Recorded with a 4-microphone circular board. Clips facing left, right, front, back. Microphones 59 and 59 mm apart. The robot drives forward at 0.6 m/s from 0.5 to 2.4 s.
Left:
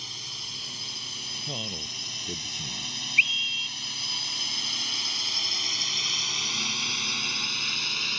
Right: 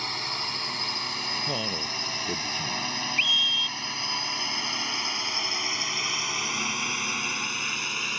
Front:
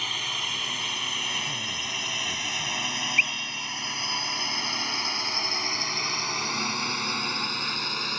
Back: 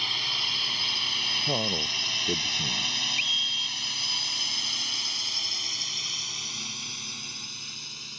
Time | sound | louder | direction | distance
0.0 | a drone | right 9 dB, front 1 dB | 80° right | ?
1.5 | a man speaking | right 6 dB, back 3 dB | 155° right | ?
3.2 | a scream | left 2 dB, front 6 dB | 40° left | ?